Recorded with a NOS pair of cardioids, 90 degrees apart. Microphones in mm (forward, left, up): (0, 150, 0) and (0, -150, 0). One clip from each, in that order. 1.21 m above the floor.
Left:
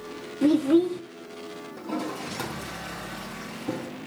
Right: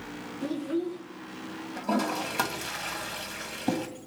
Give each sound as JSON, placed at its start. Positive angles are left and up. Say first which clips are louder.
{"t": 0.4, "sound": "a child speaking", "louder": "left 11 dB", "azimuth_deg": 40, "distance_m": 0.5}
{"t": 1.8, "sound": "a toilet flushing", "louder": "right 4 dB", "azimuth_deg": -65, "distance_m": 2.0}